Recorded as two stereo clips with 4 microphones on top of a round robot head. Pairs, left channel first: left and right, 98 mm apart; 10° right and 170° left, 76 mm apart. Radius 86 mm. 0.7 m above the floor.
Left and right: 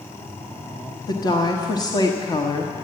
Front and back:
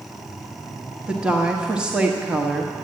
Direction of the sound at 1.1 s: 100° left.